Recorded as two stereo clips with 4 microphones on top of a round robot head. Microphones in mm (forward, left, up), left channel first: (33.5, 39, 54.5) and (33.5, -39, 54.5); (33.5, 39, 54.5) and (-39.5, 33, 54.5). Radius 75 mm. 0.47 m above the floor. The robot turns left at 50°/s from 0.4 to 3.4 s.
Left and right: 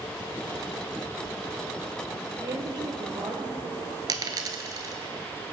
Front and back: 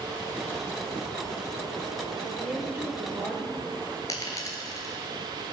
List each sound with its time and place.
2.4 s a woman speaking: 85° right, 1.5 m; by 3.9 s 135° right, 1.5 m
4.1 s a dropped coin: 55° right, 0.7 m